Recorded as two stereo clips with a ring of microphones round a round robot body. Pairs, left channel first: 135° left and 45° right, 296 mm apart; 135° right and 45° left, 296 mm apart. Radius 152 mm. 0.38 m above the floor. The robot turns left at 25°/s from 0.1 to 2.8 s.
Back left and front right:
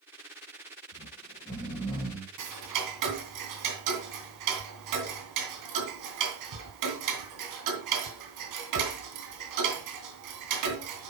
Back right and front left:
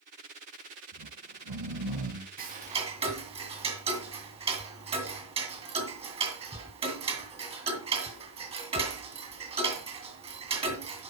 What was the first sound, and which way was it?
Snoring, 70° left.